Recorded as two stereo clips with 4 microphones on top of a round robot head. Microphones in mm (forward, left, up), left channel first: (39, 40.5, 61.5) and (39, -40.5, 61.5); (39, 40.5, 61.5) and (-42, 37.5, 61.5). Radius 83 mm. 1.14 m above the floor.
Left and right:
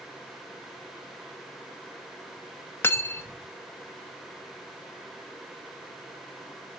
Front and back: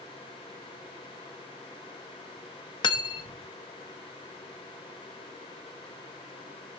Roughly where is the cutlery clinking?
Ahead left.